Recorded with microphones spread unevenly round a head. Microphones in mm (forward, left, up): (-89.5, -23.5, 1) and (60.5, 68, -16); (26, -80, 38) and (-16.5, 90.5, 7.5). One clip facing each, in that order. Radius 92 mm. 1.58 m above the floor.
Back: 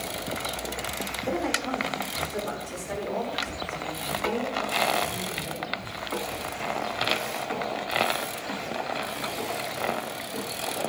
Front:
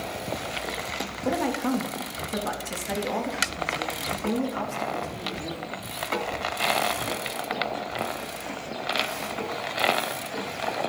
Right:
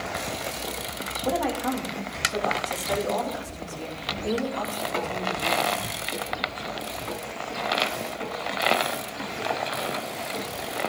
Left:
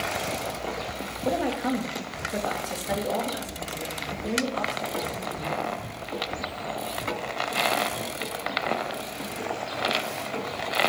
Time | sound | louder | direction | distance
1.2 | a woman speaking | front 3 dB, even | 40° left | 3 m